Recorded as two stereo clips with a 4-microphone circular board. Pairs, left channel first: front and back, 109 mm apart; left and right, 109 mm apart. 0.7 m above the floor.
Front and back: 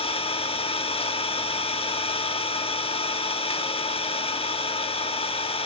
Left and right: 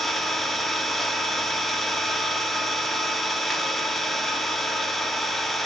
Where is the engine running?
Straight ahead, 1.1 m.